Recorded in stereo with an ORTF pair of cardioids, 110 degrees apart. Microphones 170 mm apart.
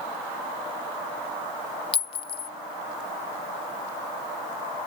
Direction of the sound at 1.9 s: 35° left.